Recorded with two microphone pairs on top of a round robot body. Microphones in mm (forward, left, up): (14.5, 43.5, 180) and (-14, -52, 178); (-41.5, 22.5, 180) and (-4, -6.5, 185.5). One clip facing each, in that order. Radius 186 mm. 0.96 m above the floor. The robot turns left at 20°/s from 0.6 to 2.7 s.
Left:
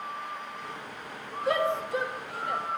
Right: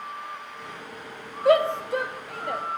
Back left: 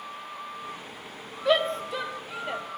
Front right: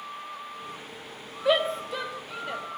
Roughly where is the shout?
Behind right.